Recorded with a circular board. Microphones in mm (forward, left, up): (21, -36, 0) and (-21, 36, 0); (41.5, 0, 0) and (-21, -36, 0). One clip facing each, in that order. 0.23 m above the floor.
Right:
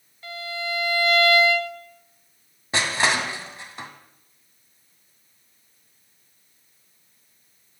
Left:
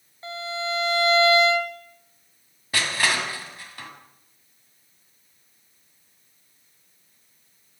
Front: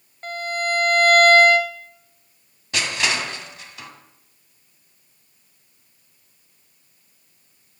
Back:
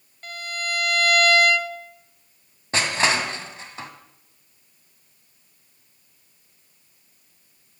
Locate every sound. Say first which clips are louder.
0.2 s a violin: left 2 dB, front 6 dB; 70° left, 1.3 m
2.7 s crushing: right 2 dB, back 2 dB; 115° right, 2.0 m